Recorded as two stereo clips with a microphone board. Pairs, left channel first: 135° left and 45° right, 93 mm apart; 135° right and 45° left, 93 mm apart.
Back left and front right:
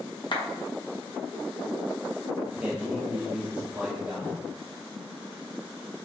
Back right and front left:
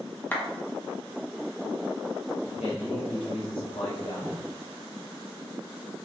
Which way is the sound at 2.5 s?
120° right.